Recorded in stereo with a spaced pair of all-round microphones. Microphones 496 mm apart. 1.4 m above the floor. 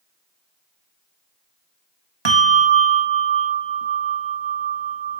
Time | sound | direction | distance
2.2 | a bell | 60° right (ahead or behind) | 1.3 m